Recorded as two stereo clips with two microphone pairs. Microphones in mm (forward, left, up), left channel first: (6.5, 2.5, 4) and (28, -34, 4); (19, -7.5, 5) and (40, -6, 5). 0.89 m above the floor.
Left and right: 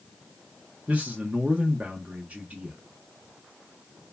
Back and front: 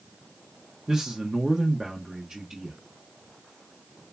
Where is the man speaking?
35° right, 1.1 m.